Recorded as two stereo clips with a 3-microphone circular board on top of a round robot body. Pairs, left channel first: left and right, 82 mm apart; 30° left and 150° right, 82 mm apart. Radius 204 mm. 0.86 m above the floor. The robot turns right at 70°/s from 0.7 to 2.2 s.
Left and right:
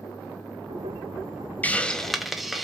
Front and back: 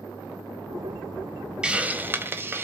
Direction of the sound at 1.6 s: 140° left.